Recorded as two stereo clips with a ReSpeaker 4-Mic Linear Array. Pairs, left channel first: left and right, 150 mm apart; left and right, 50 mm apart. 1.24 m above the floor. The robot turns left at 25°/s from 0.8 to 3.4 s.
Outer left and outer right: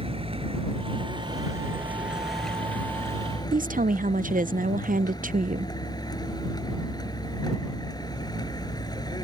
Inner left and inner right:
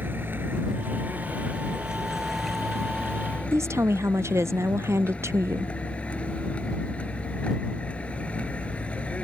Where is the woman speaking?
65° right (ahead or behind).